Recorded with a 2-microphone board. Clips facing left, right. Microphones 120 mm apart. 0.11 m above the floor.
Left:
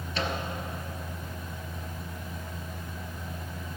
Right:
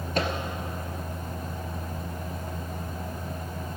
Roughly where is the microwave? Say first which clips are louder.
Right 4 dB; right.